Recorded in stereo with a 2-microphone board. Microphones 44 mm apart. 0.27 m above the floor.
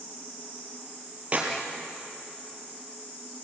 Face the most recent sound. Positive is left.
turn(degrees=-30)  # may be behind; listen again after turning